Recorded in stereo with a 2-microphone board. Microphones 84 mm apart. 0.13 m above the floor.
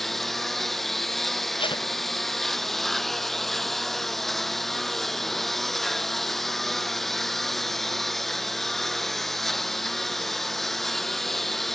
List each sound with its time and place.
0.0 s a lawn mower: 5° left (ahead or behind)
1.6 s tape being pulled: 85° left